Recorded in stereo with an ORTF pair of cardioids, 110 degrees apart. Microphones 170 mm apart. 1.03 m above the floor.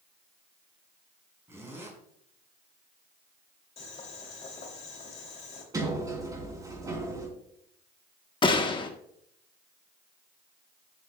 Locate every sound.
1.5 s a zipper: 15° right, 5.5 m
3.8 s boiling: 35° left, 3.5 m
5.7 s a sliding door: 20° right, 3.5 m
8.4 s a gunshot: 25° left, 1.4 m